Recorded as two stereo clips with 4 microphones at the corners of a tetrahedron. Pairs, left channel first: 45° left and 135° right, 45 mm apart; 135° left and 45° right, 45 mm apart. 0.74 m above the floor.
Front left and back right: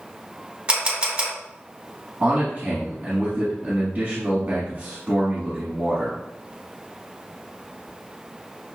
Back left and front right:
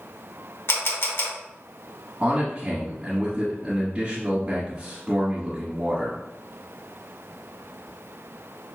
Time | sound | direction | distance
0.7 | a camera shutter | 160° left | 1.4 m
2.2 | a man speaking | 105° right | 1.3 m